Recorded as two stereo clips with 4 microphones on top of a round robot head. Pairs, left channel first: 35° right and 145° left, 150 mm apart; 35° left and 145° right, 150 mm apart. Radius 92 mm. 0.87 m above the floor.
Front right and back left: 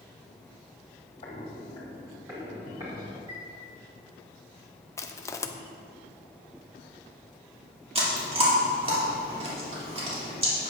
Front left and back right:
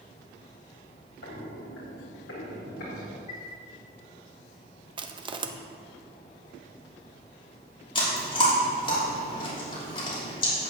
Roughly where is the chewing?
Left.